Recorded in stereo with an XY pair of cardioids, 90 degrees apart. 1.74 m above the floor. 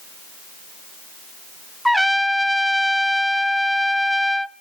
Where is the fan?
I don't hear a fan.